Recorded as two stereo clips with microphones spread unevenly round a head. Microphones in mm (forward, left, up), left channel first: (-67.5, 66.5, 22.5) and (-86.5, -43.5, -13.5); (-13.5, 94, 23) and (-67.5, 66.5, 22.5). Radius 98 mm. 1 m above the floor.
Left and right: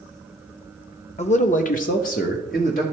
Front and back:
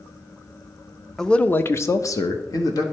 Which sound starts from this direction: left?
A man speaking, at 1.2 s.